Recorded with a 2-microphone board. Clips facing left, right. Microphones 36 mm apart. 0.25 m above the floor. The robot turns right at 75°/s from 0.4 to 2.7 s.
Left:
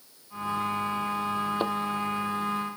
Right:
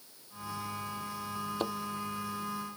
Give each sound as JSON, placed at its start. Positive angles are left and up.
{"t": 1.6, "sound": "a thud", "side_deg": 25}